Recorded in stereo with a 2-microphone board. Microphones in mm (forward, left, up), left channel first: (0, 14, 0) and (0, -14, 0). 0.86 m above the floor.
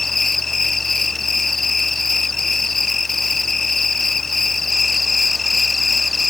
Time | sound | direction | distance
0.0 | an insect | 10° left (ahead or behind) | ?